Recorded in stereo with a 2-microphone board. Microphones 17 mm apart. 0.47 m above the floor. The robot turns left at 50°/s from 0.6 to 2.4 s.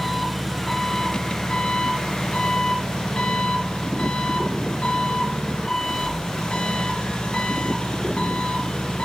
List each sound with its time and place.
0.0 s an engine running: 175° left, 3 m; by 9.1 s 85° left, 3 m